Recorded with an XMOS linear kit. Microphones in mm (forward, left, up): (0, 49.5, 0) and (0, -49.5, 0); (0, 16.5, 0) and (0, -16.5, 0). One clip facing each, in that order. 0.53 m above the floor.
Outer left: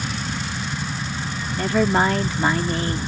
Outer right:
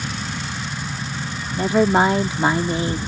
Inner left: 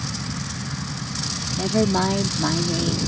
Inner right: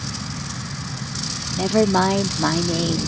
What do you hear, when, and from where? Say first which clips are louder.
1.5 s a woman speaking: outer right 3 dB, inner right 3 dB; 20° right (ahead or behind)